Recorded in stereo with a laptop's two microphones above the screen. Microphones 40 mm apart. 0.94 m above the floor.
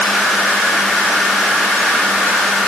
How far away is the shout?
No shout in this recording.